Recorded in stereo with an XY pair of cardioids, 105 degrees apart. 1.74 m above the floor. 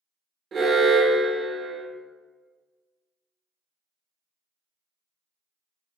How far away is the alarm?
About 0.6 m.